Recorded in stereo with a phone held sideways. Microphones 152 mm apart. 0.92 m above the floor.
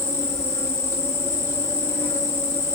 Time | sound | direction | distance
0.0 | an insect | 20° left (ahead or behind) | 1.0 m